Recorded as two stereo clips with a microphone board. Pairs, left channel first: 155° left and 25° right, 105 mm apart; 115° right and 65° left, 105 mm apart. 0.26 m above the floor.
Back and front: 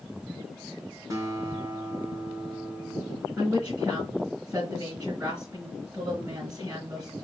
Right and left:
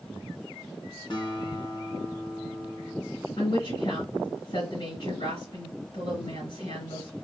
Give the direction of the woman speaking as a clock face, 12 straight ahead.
3 o'clock.